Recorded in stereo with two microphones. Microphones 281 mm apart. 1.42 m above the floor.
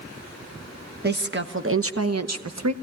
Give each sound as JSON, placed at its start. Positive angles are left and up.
{"t": 1.0, "sound": "a woman speaking", "side_deg": -35, "distance_m": 1.3}